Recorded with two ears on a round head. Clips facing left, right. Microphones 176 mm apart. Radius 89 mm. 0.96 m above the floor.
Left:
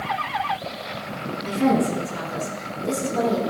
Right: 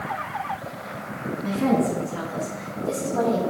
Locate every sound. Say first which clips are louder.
1.4 s a woman speaking: left 1 dB; 40° left (ahead or behind), 8.5 m; by 3.4 s 45° left (ahead or behind), 5.5 m